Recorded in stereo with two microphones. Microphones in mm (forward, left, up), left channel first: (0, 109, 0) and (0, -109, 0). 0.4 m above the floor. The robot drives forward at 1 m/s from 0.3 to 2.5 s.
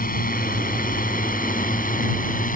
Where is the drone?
40° left (ahead or behind).